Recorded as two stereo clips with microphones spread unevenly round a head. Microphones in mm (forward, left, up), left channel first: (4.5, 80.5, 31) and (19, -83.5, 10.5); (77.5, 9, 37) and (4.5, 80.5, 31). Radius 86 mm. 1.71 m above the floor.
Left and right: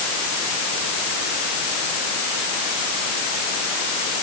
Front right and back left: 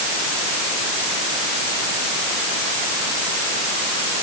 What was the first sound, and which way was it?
Only background noise.